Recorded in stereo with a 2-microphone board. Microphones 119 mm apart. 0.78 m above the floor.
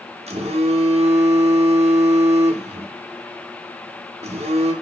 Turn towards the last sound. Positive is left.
turn(degrees=-60)  # may be behind; listen again after turning